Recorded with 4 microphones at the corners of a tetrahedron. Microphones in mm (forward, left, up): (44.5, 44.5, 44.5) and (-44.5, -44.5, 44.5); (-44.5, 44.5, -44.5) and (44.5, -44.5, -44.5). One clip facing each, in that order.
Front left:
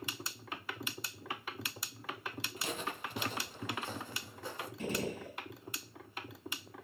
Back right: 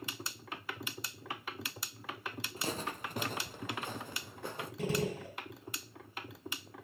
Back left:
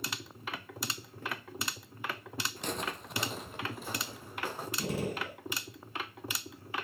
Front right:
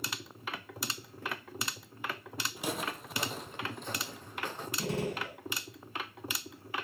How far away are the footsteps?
About 1.3 m.